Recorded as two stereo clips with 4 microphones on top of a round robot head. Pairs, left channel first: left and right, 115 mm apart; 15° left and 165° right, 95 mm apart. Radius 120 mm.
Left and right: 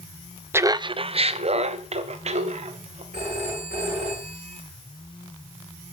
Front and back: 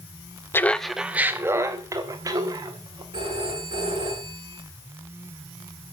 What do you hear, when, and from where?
0.5 s laughter: 35° right, 0.5 m; by 3.0 s 115° right, 1.9 m
3.1 s a phone ringing: 125° right, 8.5 m